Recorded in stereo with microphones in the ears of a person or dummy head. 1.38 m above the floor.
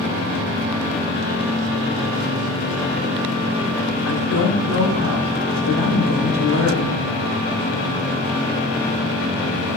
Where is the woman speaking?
80° left, 3.5 m.